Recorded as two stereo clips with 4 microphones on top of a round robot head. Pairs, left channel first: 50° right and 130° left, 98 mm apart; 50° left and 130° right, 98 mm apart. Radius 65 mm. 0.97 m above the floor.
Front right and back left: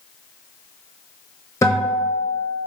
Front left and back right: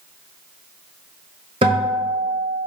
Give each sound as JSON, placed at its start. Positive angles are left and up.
{"t": 1.6, "sound": "a guitar", "azimuth_deg": -105, "distance_m": 0.9}